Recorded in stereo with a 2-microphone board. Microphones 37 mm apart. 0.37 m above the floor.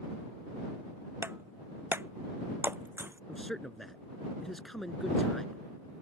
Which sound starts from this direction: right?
Breaking glass, at 1.2 s.